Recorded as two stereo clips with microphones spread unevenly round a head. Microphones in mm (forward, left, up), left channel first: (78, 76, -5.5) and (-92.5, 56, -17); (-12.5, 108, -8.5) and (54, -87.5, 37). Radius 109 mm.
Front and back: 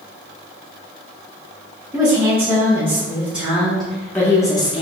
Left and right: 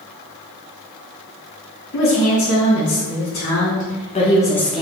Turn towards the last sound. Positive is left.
turn(degrees=35)